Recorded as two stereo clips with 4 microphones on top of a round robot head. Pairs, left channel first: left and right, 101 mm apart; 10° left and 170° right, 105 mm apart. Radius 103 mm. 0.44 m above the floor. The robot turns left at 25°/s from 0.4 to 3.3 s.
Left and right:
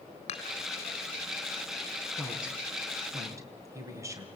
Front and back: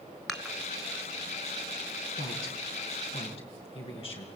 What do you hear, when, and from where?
0.3 s dishes clattering: 95° left, 3.5 m; by 0.6 s 90° left, 3.5 m
2.2 s a woman speaking: straight ahead, 5.5 m; by 4.2 s 30° right, 5.5 m